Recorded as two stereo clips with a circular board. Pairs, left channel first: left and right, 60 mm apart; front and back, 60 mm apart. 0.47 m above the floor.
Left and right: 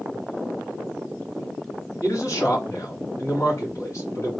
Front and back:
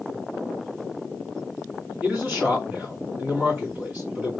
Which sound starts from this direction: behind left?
A man speaking, at 2.0 s.